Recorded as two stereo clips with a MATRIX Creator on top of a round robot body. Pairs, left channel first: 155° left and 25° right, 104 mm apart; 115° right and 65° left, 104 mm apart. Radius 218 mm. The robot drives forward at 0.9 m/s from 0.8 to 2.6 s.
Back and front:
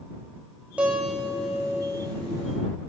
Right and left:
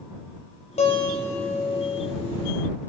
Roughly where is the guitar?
Right.